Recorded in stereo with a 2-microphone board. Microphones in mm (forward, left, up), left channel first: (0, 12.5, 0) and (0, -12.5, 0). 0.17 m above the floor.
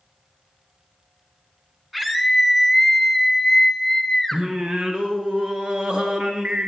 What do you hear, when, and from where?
1.9 s a scream: 5° right (ahead or behind), 1.3 m; by 4.4 s 20° left (ahead or behind), 1.2 m
4.3 s singing: 40° right (ahead or behind), 1.6 m